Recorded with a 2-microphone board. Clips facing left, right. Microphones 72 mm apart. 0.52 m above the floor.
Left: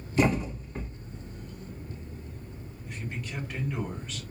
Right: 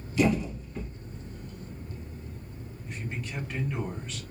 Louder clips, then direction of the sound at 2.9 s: Even; centre (ahead or behind).